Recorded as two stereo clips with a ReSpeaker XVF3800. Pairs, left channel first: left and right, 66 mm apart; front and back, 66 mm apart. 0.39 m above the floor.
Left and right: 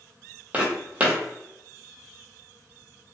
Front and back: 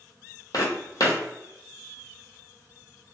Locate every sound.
0.5 s footsteps: 25° right, 0.8 m